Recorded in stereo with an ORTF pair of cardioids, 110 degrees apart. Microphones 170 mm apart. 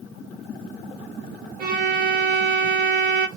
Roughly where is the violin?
Ahead right.